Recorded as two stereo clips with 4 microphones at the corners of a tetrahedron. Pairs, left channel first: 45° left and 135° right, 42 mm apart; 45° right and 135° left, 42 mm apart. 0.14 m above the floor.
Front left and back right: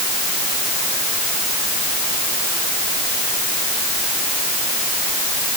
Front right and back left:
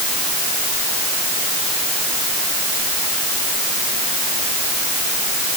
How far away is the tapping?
I don't hear tapping.